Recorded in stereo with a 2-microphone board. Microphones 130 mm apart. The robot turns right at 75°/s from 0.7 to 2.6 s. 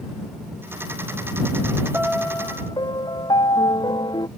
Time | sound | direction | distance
1.9 | a piano | 15° right | ?